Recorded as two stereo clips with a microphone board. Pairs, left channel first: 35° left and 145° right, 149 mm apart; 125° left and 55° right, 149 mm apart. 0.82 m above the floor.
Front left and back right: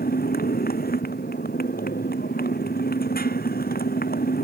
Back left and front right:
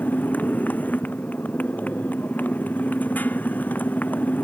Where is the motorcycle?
45° left.